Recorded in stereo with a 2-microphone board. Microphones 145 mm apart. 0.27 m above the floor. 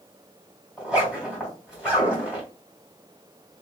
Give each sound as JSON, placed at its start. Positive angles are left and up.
{"t": 0.8, "sound": "a zipper", "side_deg": -5, "distance_m": 2.0}